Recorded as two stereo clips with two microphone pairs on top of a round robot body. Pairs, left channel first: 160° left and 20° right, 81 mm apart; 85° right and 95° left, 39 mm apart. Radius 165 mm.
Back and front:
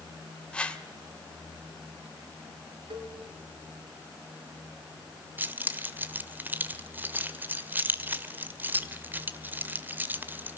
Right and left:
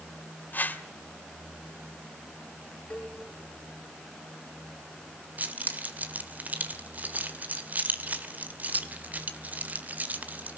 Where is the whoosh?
125° right, 1.8 m.